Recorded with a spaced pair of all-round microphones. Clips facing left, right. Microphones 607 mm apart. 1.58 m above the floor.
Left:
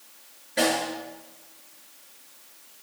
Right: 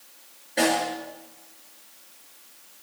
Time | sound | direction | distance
0.6 | a snare drum | 30° left (ahead or behind) | 8 m